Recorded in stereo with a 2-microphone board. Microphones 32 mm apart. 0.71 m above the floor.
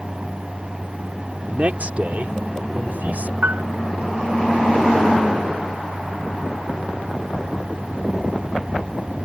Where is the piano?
85° right.